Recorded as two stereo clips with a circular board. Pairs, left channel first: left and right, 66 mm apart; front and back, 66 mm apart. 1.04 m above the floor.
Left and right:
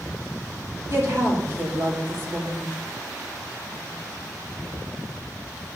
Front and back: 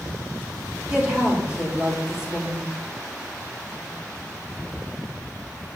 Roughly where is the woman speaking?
Ahead right.